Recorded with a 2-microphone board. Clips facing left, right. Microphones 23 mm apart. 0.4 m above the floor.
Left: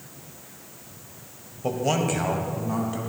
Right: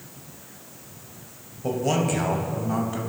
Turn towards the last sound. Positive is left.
turn(degrees=-5)  # may be behind; listen again after turning